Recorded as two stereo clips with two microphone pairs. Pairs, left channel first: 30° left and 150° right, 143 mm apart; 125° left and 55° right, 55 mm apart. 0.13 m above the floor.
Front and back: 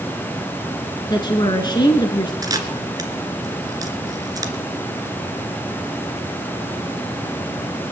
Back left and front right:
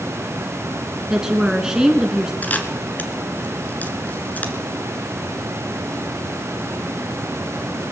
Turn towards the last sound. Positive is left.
turn(degrees=165)